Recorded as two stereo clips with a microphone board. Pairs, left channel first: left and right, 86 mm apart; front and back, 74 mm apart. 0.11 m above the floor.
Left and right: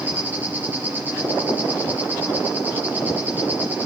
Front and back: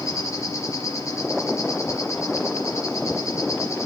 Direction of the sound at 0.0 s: 30° right.